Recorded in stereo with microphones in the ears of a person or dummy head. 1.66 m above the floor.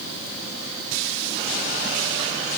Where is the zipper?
I don't hear a zipper.